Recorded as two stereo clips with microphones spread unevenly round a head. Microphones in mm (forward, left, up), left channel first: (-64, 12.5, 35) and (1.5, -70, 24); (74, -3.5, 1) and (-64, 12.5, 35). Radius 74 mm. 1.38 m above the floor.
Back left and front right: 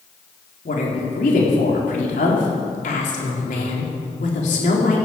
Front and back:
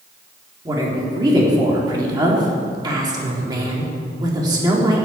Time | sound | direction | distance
0.7 | a woman speaking | 110° left | 4 m